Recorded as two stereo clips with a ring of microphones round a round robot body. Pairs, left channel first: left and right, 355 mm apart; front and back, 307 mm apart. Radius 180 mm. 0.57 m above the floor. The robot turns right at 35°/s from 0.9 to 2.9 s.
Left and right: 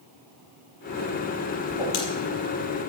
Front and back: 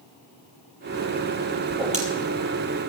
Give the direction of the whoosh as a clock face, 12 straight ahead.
9 o'clock.